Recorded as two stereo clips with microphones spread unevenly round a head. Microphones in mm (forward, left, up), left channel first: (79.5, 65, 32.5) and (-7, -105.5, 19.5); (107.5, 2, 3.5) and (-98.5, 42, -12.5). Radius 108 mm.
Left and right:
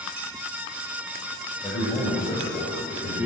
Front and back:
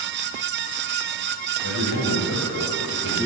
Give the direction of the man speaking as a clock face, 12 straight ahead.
12 o'clock.